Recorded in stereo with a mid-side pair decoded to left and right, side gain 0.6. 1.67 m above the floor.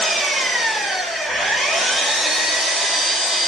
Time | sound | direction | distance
0.0 | an engine running | 5° left | 1.7 m